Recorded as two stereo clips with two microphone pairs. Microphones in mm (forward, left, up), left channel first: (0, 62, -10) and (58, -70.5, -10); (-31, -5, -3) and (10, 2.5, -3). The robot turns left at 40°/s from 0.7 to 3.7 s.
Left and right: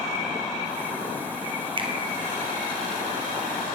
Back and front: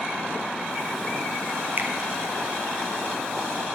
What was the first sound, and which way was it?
A finger snap, 20° right.